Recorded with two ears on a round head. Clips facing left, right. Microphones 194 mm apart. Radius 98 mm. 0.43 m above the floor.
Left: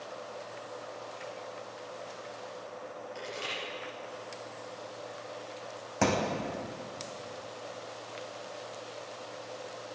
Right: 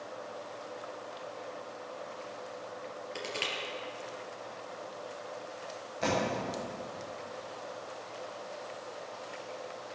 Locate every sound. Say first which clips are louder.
3.1 s crushing: right 3 dB; 70° right (ahead or behind), 4.5 m
6.0 s a thud: left 2 dB; 85° left, 3 m